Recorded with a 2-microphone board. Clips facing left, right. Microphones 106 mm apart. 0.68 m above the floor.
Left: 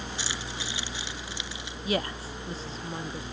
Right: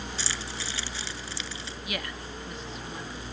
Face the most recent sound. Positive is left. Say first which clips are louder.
# left 8 dB
turn(degrees=30)  # may be behind; listen again after turning